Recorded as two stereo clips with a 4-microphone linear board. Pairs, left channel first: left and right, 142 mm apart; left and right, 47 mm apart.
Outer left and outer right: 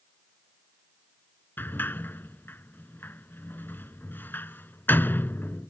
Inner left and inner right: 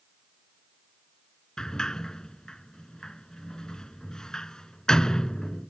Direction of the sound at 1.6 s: 15° left (ahead or behind).